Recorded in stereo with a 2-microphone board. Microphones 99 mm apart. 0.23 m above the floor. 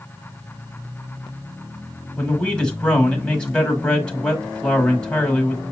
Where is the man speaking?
10° left (ahead or behind), 1.3 m.